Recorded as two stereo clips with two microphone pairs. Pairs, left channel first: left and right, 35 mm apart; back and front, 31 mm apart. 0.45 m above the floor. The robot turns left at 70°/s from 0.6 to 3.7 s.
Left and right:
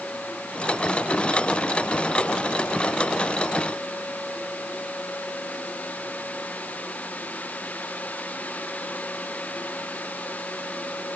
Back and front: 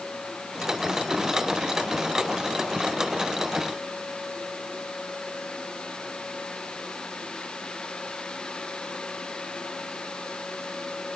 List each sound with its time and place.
Only background noise.